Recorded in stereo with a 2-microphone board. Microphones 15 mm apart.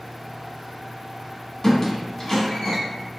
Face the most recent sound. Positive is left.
turn(degrees=35)  # may be behind; listen again after turning